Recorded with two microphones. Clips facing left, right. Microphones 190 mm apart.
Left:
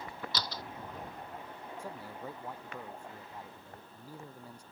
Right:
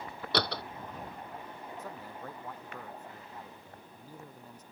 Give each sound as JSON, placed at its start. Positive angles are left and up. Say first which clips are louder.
{"t": 0.3, "sound": "a door slam", "louder": "right 11 dB", "side_deg": -60}
{"t": 1.8, "sound": "a man speaking", "louder": "left 2 dB", "side_deg": 10}